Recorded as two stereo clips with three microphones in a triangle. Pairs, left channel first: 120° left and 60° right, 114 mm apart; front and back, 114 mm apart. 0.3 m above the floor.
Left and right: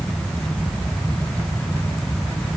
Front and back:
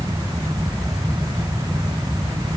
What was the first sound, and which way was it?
Only background noise.